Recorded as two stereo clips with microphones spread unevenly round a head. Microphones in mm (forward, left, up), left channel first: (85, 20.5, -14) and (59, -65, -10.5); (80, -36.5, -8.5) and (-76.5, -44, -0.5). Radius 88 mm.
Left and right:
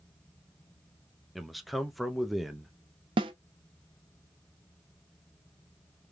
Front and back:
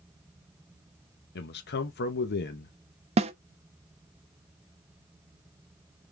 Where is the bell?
I don't hear a bell.